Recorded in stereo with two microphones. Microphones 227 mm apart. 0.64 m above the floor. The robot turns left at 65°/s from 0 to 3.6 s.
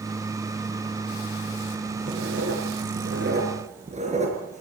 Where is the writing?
50° right (ahead or behind), 4 m; by 4.6 s 30° right (ahead or behind), 4 m.